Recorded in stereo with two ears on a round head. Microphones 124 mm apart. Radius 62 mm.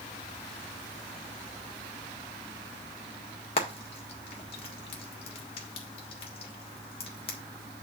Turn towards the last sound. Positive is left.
turn(degrees=40)  # may be behind; listen again after turning